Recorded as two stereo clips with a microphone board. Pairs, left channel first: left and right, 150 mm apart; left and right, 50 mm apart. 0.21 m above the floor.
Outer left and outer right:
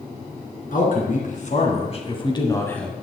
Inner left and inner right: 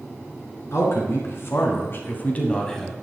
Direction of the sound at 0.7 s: 65° left (ahead or behind).